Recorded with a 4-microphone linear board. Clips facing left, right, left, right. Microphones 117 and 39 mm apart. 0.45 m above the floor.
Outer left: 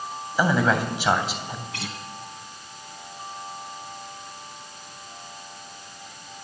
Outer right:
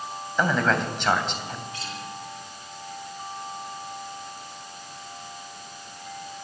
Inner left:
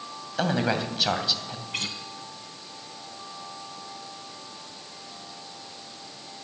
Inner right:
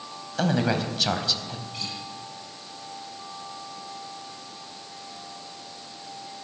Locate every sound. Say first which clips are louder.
0.4 s a man speaking: outer left 2 dB, inner right 1 dB; 5° left (ahead or behind), 3 m
1.7 s a guitar: outer left 1 dB, inner left 7 dB; 65° left (ahead or behind), 2.5 m